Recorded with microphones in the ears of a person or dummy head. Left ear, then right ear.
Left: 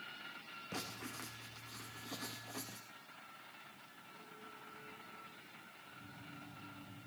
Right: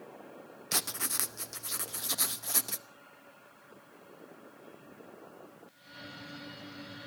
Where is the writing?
65° right (ahead or behind), 0.9 m.